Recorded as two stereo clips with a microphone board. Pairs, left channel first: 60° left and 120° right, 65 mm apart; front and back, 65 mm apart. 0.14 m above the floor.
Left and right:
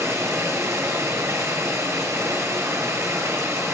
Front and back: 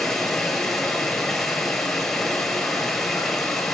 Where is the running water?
80° right, 2.0 m.